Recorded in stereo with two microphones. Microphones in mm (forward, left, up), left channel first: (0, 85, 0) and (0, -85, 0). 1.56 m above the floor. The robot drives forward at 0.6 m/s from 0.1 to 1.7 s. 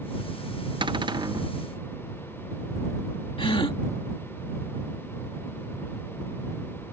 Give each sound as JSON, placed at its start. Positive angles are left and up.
{"t": 0.8, "sound": "a cupboard door", "side_deg": -30}
{"t": 3.4, "sound": "a gasp", "side_deg": 30}